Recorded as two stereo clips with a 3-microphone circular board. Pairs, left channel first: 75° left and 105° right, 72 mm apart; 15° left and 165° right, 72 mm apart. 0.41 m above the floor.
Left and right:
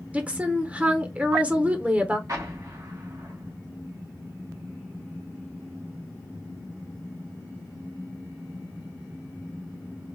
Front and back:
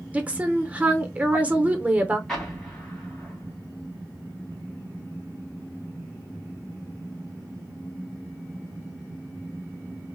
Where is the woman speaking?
135° right, 0.8 m.